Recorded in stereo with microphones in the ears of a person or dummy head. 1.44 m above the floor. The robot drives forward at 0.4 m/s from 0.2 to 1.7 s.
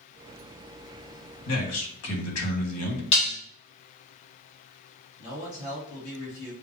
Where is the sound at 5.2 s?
60° left (ahead or behind), 2.5 m.